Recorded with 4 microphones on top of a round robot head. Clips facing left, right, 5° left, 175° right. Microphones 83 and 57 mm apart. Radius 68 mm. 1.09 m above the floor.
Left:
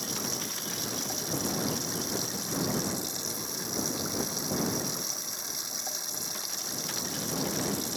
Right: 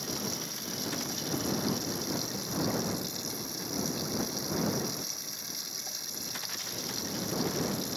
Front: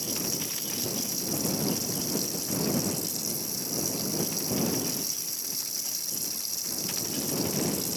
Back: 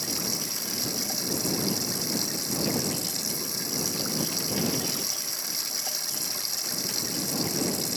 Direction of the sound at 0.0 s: 150° left.